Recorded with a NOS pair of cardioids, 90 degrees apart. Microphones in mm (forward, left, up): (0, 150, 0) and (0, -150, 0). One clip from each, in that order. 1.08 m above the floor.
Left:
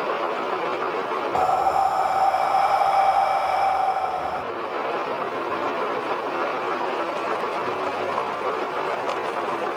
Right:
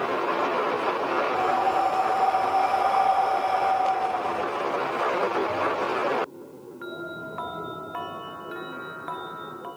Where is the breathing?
55° left, 0.5 m.